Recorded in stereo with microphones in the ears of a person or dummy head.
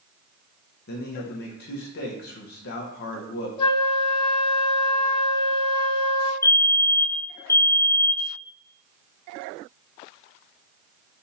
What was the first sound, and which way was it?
A man speaking, 65° left (ahead or behind).